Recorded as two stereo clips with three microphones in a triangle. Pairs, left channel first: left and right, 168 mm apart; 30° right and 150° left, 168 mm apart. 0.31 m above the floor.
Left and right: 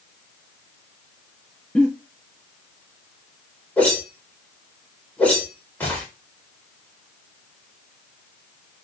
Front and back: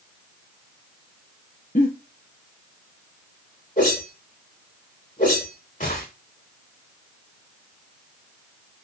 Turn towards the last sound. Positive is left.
turn(degrees=10)